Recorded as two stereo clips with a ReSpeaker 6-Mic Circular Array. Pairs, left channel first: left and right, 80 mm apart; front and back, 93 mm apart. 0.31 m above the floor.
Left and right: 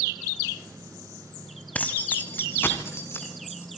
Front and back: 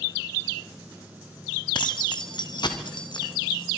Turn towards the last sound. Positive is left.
turn(degrees=35)